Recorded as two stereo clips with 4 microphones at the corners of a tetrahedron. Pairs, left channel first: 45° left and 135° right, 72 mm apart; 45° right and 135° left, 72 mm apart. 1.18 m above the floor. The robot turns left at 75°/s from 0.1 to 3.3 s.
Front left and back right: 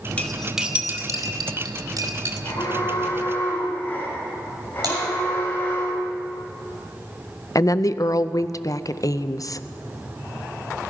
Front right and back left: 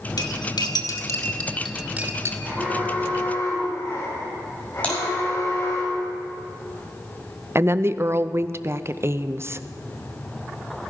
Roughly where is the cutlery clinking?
Ahead.